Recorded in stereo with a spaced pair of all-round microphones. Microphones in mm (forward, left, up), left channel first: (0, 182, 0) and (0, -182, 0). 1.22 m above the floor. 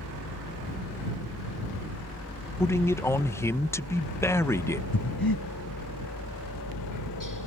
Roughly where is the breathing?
Left.